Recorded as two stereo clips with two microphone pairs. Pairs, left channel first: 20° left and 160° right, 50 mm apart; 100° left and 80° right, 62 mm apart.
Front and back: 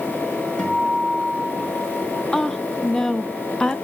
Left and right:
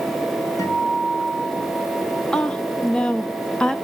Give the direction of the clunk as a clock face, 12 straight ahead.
I don't hear a clunk.